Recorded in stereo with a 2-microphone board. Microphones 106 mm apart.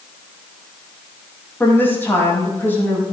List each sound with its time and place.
1.6 s a woman speaking: 20° left (ahead or behind), 5 m